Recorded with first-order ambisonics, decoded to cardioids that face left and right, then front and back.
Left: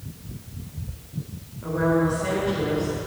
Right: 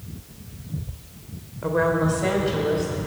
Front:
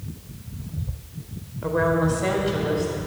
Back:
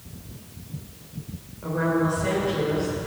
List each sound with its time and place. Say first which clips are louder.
1.6 s a woman speaking: right 1 dB, front 3 dB; 50° right, 1.8 m; by 3.0 s 35° right, 3.5 m